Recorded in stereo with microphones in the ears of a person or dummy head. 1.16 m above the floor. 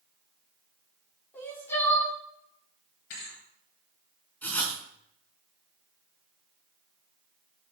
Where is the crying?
15° left (ahead or behind), 4 m.